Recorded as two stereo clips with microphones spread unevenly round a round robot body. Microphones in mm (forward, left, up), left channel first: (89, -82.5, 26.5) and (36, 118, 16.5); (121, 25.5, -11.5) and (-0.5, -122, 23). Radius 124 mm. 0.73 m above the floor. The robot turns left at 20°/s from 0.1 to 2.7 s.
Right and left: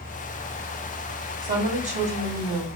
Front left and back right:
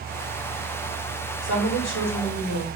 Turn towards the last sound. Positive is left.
turn(degrees=35)